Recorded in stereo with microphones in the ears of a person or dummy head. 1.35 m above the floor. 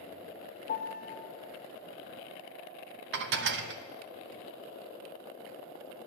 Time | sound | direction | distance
0.7 | a piano | 50° left (ahead or behind) | 1.1 m
3.1 | dishes clattering | 65° right (ahead or behind) | 0.9 m